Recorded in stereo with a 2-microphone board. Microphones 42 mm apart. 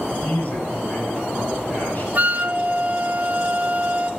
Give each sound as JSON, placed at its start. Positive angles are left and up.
{"t": 0.1, "sound": "a man speaking", "side_deg": 40, "distance_m": 9.0}
{"t": 2.1, "sound": "a flute", "side_deg": -35, "distance_m": 0.7}